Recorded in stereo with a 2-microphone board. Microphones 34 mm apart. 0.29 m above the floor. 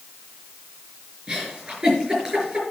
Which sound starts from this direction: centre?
A giggle, at 1.3 s.